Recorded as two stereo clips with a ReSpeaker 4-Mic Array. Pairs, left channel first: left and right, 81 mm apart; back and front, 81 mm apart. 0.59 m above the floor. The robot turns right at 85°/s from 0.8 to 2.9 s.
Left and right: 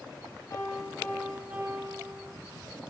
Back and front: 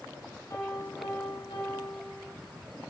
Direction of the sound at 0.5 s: 135° left.